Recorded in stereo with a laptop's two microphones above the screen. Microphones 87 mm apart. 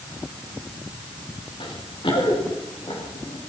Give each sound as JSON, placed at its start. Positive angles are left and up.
{"t": 1.6, "sound": "running footsteps", "side_deg": 80, "distance_m": 6.0}